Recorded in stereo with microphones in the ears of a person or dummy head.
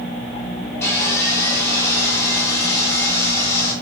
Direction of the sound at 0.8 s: 20° left (ahead or behind).